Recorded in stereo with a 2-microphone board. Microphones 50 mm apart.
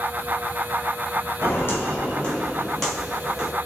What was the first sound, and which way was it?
Footsteps, 55° left (ahead or behind).